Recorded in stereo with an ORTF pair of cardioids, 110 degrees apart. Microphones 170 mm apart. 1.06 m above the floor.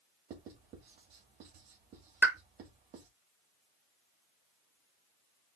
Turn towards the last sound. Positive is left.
turn(degrees=-10)